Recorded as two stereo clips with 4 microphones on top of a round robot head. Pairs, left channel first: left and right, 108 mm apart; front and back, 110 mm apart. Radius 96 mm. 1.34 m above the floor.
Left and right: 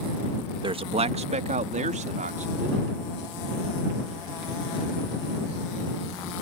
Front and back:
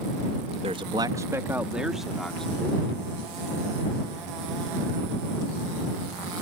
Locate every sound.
0.6 s a man speaking: 130° right; by 2.9 s 85° right